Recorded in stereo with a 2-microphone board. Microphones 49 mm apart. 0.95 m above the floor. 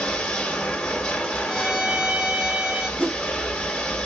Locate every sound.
0.0 s running water: 15° left (ahead or behind), 1.2 m
1.5 s a violin: 15° right (ahead or behind), 0.7 m
3.0 s a whoosh: 35° right (ahead or behind), 1.0 m